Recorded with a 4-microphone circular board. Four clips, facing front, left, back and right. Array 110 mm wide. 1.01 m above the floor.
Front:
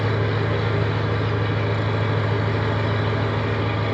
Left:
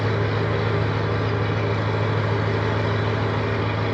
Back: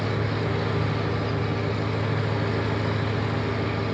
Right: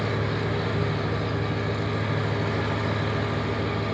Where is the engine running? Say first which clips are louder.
Left 4 dB, front 3 dB; 55° left, 3 m.